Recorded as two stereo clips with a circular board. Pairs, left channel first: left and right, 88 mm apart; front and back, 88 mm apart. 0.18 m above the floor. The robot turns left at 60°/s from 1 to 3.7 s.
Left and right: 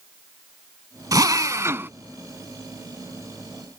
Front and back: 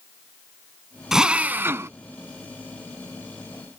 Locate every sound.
1.1 s a drill: 95° right; by 1.9 s 145° right